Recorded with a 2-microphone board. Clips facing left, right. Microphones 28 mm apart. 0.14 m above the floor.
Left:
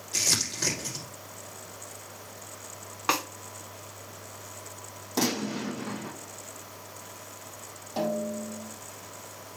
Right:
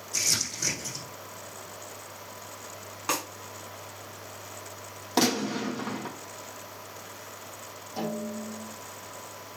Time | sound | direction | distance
0.1 | crumpling | 45° left (ahead or behind) | 4.5 m
3.1 | a snare drum | 25° left (ahead or behind) | 1.5 m
5.2 | a gunshot | 40° right (ahead or behind) | 3 m
8.0 | a snare drum | 45° left (ahead or behind) | 4.5 m